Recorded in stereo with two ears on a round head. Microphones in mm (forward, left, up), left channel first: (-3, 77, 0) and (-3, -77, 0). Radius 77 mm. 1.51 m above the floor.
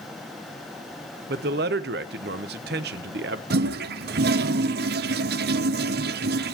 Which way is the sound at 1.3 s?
60° right (ahead or behind).